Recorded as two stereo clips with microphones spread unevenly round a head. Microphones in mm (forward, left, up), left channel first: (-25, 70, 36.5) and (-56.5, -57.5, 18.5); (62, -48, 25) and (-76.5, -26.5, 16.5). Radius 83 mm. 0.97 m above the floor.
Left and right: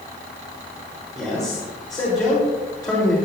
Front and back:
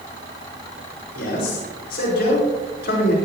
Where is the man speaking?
5° left, 5.5 m.